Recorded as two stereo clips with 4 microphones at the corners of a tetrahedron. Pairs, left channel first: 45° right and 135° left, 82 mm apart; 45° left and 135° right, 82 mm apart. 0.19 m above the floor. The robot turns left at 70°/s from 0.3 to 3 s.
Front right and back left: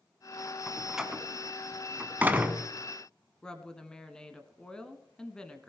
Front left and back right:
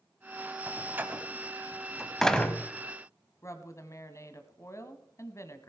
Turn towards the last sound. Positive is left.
turn(degrees=30)